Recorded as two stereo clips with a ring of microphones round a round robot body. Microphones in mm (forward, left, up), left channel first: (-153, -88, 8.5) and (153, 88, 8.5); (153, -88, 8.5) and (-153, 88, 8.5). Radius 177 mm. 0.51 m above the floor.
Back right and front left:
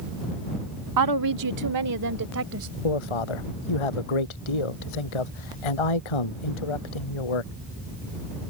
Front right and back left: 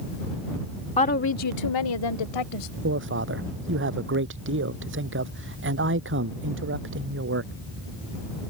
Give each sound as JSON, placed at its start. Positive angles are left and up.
{"t": 1.0, "sound": "a woman speaking", "azimuth_deg": 40}
{"t": 2.8, "sound": "a man speaking", "azimuth_deg": -150}